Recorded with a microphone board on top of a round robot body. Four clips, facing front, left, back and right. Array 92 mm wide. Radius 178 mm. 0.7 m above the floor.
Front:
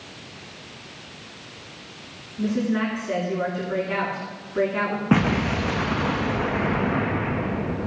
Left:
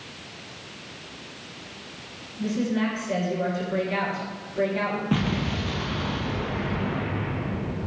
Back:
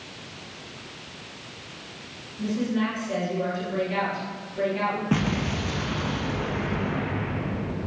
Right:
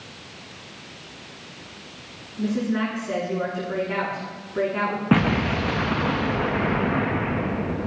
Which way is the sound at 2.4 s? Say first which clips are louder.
Right 1 dB, front 3 dB; 40° right.